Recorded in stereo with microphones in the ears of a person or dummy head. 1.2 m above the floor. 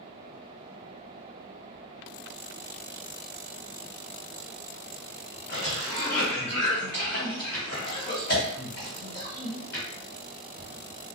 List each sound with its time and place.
5.5 s a cough: 55° left (ahead or behind), 1.4 m